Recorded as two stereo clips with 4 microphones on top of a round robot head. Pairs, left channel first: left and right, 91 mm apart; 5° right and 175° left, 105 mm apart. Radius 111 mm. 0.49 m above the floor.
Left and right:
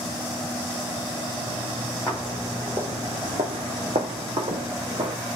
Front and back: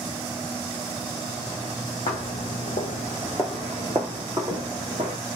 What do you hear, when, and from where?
2.1 s footsteps: 5° left, 0.8 m; by 5.2 s 130° right, 1.4 m